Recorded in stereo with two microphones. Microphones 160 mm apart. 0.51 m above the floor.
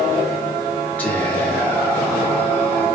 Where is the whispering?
10° left (ahead or behind), 0.6 m.